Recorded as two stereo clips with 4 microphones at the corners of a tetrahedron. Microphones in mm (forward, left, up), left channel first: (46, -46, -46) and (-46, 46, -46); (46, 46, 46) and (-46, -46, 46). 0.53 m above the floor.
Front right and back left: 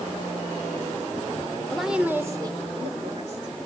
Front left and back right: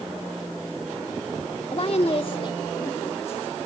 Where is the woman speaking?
40° left, 1.3 m; by 3.5 s 120° left, 2 m.